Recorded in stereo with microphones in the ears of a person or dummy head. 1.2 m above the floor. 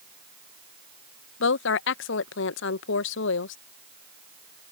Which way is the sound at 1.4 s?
65° left (ahead or behind).